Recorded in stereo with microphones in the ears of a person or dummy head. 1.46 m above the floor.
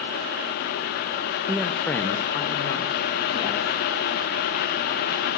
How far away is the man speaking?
About 0.5 m.